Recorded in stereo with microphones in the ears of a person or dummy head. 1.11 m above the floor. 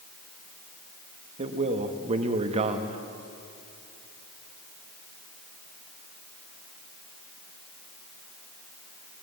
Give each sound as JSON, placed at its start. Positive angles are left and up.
{"t": 1.4, "sound": "a man speaking", "side_deg": -30, "distance_m": 1.6}